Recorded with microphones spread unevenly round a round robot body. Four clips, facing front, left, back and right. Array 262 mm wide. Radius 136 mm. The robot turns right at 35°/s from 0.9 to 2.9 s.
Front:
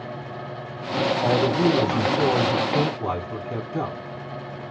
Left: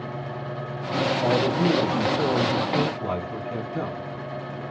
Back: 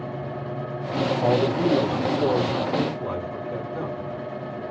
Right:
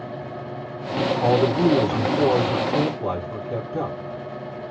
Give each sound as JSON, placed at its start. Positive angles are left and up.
{"t": 1.2, "sound": "a man speaking", "azimuth_deg": -85, "distance_m": 2.5}